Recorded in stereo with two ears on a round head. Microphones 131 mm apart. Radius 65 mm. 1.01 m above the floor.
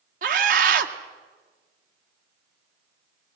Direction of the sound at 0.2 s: 60° right (ahead or behind).